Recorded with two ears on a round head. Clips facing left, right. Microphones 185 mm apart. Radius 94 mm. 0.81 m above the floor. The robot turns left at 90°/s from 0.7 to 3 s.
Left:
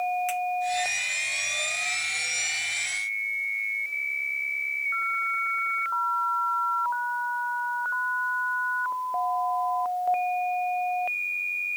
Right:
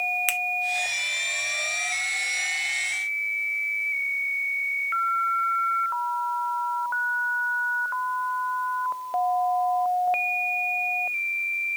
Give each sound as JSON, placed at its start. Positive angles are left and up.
{"t": 0.3, "sound": "a finger snap", "side_deg": -75, "distance_m": 0.7}